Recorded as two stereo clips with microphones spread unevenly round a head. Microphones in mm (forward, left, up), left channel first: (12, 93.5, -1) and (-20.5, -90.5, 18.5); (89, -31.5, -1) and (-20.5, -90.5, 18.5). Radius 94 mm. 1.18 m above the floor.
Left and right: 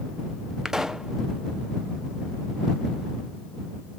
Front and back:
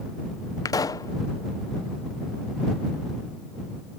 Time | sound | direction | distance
0.7 | a pop | 5° right | ?